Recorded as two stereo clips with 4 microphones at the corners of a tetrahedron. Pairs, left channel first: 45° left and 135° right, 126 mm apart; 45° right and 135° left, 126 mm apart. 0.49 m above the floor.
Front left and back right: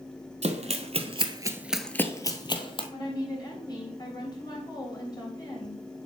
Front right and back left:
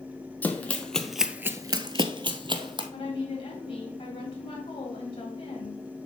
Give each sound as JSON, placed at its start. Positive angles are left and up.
{"t": 0.4, "sound": "running footsteps", "azimuth_deg": -120, "distance_m": 1.1}
{"t": 2.9, "sound": "a woman speaking", "azimuth_deg": -5, "distance_m": 3.0}